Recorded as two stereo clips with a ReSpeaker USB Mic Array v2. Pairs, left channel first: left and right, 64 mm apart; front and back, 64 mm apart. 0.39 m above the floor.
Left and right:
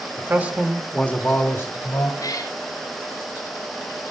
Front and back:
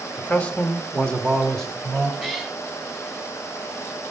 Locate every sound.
0.2 s a man speaking: 65° right, 1.4 m; by 2.1 s 85° left, 2 m
2.2 s a cat meowing: 90° left, 1.8 m